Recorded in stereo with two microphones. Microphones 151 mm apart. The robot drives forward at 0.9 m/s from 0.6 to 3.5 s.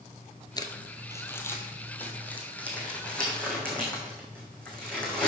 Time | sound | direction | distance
0.6 | crumpling | 30° left (ahead or behind) | 0.9 m